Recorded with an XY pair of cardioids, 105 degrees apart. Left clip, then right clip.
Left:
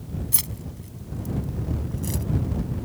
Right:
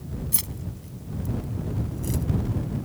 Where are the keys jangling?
15° left; by 2.2 s 25° left.